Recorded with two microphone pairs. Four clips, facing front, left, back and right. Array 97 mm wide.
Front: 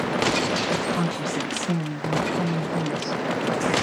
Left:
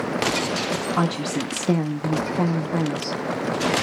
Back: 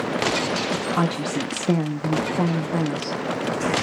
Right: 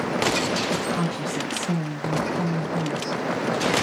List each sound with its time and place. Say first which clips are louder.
1.0 s a woman speaking: left 3 dB, back 3 dB; 135° left, 1.1 m